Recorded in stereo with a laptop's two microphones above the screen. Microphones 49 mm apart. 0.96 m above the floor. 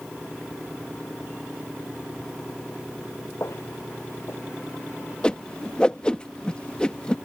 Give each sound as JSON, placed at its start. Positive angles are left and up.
{"t": 3.4, "sound": "footsteps", "side_deg": 70}
{"t": 5.2, "sound": "a whoosh", "side_deg": 20}